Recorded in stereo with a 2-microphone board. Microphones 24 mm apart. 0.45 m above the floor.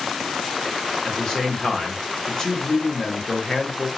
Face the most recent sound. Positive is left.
turn(degrees=25)  # may be behind; listen again after turning